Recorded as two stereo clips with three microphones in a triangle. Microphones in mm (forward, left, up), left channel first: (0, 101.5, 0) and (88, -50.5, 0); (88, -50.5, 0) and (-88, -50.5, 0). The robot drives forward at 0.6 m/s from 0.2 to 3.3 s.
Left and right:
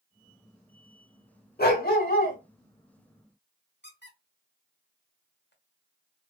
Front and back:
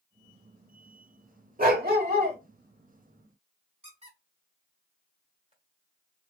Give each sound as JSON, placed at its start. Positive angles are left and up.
{"t": 1.6, "sound": "a dog barking", "azimuth_deg": 145, "distance_m": 1.2}
{"t": 3.8, "sound": "a squeak", "azimuth_deg": 125, "distance_m": 1.6}